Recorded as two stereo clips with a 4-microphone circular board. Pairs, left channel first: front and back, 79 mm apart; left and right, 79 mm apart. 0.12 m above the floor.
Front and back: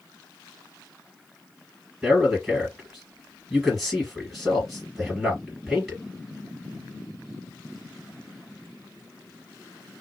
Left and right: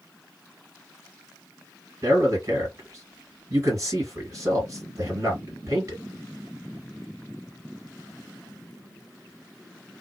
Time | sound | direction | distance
2.0 | a man speaking | 90° right | 2.5 m